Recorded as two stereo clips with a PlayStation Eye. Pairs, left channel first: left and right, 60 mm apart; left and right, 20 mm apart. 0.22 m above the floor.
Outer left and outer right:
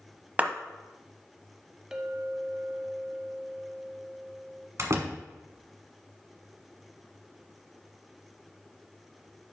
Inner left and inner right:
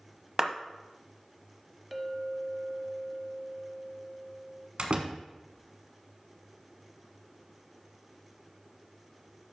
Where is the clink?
10° right (ahead or behind), 0.6 m.